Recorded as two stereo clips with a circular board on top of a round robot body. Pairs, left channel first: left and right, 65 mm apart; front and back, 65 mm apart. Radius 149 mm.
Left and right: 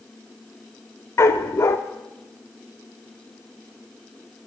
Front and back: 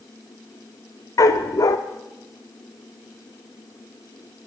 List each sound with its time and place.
1.2 s a dog barking: 40° left, 0.9 m